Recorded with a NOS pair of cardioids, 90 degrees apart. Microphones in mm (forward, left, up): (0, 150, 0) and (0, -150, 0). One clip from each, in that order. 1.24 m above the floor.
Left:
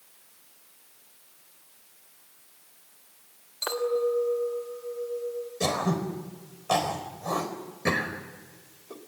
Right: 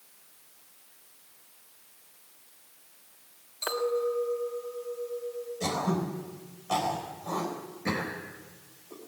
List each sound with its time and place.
3.6 s a clink: 10° left, 3 m
5.6 s throat clearing: 60° left, 4.5 m